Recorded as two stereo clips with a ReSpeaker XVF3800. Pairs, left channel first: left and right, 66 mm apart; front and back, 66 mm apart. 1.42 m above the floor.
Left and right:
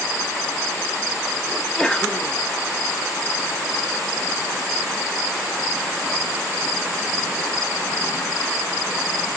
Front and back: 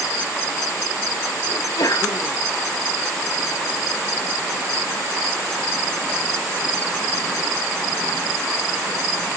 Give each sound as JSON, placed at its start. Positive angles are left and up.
{"t": 1.5, "sound": "a sneeze", "azimuth_deg": 10, "distance_m": 2.0}